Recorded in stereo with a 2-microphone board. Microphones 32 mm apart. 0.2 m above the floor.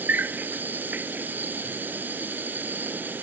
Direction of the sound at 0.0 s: 60° right (ahead or behind).